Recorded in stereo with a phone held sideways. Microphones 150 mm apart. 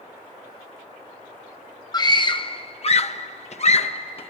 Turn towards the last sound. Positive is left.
turn(degrees=40)  # may be behind; listen again after turning